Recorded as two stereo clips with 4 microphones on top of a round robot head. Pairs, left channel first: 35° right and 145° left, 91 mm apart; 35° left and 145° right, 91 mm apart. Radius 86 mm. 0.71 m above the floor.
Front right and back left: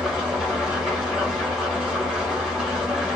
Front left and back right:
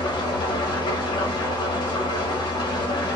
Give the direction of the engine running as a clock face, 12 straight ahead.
10 o'clock.